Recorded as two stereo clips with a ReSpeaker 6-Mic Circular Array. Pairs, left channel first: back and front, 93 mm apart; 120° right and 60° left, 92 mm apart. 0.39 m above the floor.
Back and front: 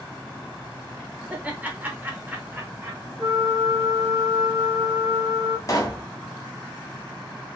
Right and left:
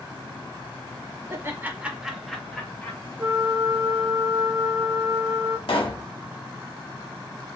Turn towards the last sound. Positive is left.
turn(degrees=-130)